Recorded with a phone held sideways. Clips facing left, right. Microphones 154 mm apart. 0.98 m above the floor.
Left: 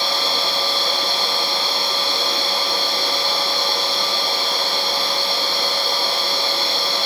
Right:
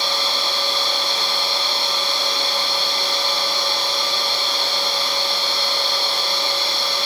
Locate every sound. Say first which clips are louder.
0.0 s a machine running: left 2 dB; 55° left (ahead or behind), 3.5 m